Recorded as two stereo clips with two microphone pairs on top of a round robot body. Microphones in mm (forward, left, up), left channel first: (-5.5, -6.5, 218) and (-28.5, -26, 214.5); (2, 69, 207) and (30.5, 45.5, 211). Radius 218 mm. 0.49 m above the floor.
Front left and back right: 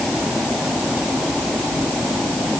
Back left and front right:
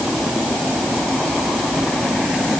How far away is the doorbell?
No doorbell in this recording.